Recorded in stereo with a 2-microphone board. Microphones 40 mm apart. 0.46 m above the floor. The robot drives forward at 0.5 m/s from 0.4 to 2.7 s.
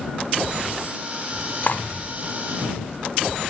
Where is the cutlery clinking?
45° left (ahead or behind), 0.8 m; by 1.8 s 50° left (ahead or behind), 0.7 m.